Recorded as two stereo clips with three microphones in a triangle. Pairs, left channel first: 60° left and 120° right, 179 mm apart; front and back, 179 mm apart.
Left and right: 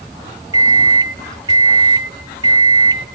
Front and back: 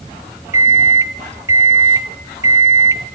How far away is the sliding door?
No sliding door in this recording.